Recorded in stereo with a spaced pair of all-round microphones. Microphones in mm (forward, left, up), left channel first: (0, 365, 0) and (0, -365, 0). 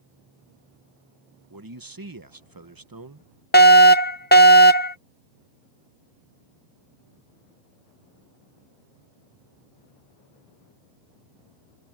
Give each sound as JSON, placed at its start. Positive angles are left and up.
{"t": 1.5, "sound": "a man speaking", "side_deg": -30}
{"t": 3.5, "sound": "a fire alarm", "side_deg": 15}